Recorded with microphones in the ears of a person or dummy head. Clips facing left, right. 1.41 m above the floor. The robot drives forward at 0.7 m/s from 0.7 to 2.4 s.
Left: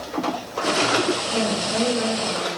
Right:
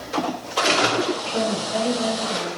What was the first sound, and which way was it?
A woman speaking, 65° left (ahead or behind).